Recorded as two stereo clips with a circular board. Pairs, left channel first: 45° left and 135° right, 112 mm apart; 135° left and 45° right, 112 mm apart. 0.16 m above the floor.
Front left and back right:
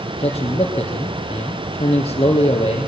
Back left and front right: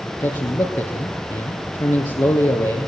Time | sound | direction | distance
0.2 | a man speaking | 80° left | 3 m